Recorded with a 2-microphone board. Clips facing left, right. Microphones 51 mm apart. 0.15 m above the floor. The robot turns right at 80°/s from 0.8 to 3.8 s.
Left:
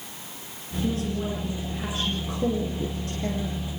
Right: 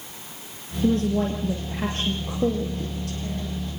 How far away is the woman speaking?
About 2.5 m.